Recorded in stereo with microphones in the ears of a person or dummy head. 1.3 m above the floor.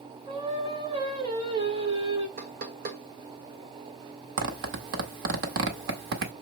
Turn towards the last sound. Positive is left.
turn(degrees=-65)  # may be behind; listen again after turning